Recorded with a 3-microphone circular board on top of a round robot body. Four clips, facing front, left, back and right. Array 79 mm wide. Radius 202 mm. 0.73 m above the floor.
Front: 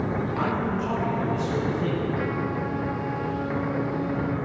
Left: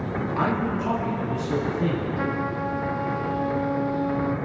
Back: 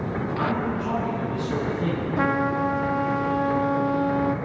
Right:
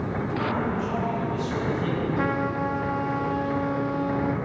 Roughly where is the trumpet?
Behind.